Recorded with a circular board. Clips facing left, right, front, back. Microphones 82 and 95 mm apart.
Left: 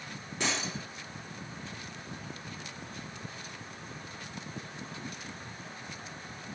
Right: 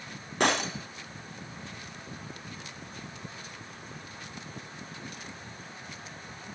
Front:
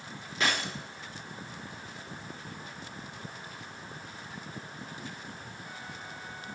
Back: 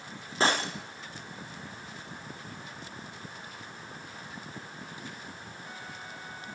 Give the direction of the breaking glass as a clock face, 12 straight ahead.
4 o'clock.